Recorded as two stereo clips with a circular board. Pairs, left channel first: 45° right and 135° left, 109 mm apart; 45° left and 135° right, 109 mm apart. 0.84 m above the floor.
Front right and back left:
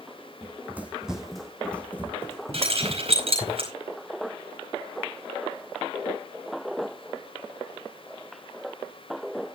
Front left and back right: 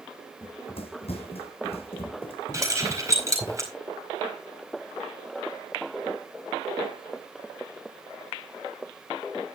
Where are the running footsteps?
70° left, 1.9 m; by 3.5 s straight ahead, 2.5 m.